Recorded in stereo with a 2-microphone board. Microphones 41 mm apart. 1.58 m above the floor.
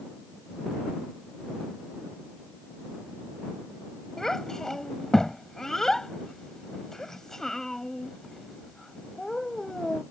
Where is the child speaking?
15° left (ahead or behind).